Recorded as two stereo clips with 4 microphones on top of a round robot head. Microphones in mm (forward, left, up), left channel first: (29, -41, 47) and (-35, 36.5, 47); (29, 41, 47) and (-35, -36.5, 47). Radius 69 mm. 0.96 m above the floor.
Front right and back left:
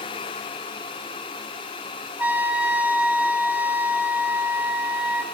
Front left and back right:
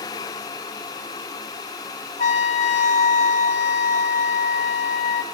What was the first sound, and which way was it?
A trumpet, 55° left.